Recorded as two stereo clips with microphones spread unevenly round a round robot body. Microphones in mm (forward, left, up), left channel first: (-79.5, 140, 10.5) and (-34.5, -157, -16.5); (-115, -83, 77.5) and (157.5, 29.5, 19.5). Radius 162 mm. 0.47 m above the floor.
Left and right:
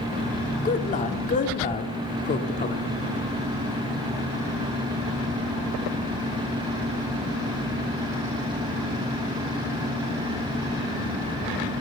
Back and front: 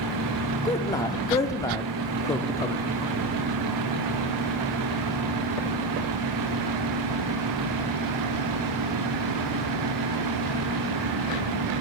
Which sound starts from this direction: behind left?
A man speaking, at 0.7 s.